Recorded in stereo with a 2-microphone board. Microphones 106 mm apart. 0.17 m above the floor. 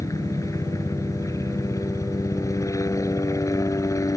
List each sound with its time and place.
0.0 s a helicopter: 30° left (ahead or behind)